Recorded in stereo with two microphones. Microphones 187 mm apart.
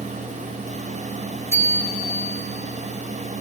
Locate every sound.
1.5 s a bicycle bell: 15° right (ahead or behind), 7 m